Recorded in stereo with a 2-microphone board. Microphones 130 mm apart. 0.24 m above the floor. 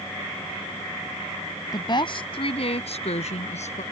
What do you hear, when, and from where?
1.7 s a woman speaking: 35° left (ahead or behind); by 3.8 s 65° left (ahead or behind)